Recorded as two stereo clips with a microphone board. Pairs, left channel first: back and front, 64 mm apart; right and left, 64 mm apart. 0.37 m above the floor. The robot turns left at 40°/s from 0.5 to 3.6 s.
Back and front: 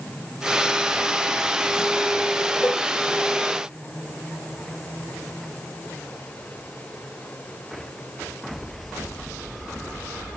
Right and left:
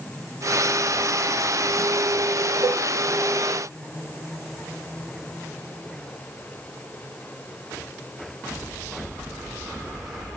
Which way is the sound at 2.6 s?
110° left.